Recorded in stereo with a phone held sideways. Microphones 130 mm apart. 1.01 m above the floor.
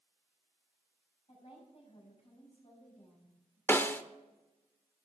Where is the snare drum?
15° left (ahead or behind), 0.7 m.